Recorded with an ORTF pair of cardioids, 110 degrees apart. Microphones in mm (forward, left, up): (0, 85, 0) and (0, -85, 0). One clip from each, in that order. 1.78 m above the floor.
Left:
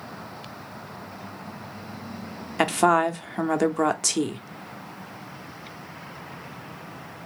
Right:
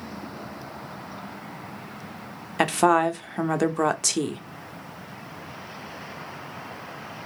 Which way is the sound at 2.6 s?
Straight ahead.